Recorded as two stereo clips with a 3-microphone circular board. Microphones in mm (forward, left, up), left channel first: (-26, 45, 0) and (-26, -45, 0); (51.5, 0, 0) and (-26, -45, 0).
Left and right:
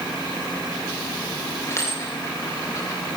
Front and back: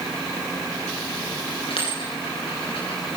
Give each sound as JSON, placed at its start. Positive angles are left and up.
{"t": 1.7, "sound": "a dropped coin", "azimuth_deg": 35, "distance_m": 6.5}